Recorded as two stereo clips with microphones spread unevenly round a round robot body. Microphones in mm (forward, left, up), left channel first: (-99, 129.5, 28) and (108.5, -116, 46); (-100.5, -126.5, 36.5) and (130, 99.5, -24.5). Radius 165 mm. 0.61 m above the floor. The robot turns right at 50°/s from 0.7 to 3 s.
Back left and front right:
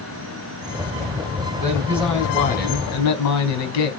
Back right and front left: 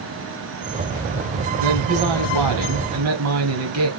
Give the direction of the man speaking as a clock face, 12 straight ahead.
11 o'clock.